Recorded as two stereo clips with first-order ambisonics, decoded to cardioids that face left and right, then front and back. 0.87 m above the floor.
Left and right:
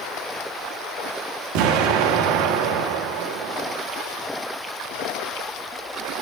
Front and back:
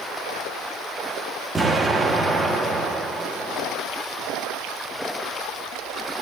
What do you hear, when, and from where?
1.6 s an explosion: 95° right, 1.3 m